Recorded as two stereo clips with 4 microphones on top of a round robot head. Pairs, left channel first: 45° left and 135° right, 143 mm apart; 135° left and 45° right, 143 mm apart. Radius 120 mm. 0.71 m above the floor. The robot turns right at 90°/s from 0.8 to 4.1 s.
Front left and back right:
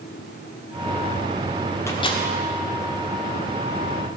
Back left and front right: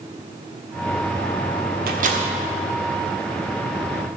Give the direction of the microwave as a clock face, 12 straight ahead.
1 o'clock.